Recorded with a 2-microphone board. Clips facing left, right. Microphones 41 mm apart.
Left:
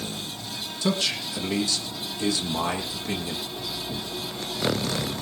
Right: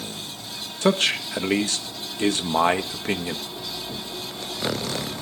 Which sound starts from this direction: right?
A man speaking, at 0.8 s.